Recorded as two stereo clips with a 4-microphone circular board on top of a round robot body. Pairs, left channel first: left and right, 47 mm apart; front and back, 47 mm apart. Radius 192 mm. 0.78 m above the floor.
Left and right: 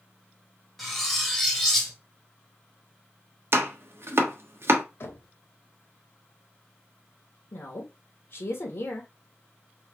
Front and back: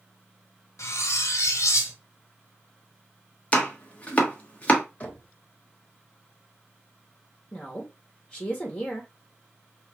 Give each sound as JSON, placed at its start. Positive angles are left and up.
{"t": 0.8, "sound": "cutlery clinking", "azimuth_deg": 5, "distance_m": 1.2}
{"t": 3.5, "sound": "chopping", "azimuth_deg": -60, "distance_m": 1.0}
{"t": 5.0, "sound": "knocking", "azimuth_deg": 60, "distance_m": 1.2}
{"t": 7.5, "sound": "a woman speaking", "azimuth_deg": 70, "distance_m": 1.4}